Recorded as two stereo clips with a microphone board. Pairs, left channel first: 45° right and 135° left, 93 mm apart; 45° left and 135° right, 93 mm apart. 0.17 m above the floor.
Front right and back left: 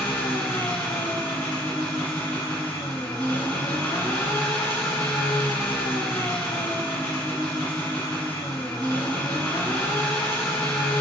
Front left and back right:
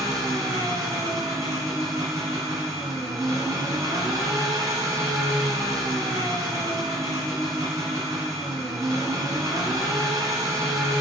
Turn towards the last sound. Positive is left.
turn(degrees=-110)